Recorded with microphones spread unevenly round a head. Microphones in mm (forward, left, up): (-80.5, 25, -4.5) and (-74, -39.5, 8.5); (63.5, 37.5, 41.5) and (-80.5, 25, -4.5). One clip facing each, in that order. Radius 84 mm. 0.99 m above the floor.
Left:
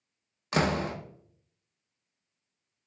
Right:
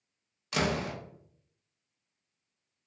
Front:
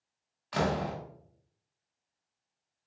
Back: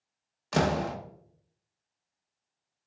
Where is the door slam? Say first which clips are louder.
Left 3 dB, back 3 dB; 150° left, 0.6 m.